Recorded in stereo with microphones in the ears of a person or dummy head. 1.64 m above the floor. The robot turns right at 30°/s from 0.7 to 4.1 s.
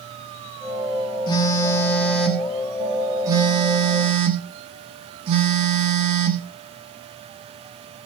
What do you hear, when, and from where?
1.3 s a phone buzzing: 145° left, 1.3 m; by 6.5 s 130° right, 1.3 m